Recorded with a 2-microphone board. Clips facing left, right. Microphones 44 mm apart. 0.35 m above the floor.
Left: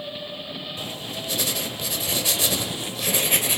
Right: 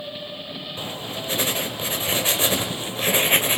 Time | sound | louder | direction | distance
0.8 | writing | right 2 dB | 35° right (ahead or behind) | 1.7 m